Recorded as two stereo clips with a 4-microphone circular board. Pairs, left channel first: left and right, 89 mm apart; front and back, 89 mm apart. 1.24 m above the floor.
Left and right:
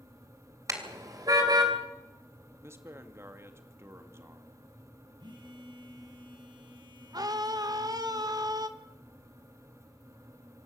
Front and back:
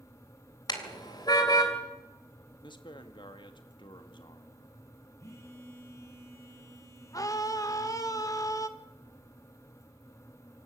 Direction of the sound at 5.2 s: 60° right.